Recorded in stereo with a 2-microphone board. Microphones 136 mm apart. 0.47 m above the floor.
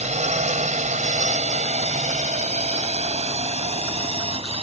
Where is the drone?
60° right (ahead or behind); by 4.6 s 50° right (ahead or behind).